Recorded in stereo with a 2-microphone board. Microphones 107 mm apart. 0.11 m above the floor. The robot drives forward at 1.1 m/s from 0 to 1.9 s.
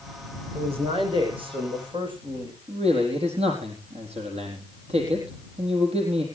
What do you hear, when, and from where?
0.6 s a man speaking: 60° right (ahead or behind), 6.5 m; by 2.5 s 50° right (ahead or behind), 7.5 m
2.7 s a man speaking: 70° right (ahead or behind), 4 m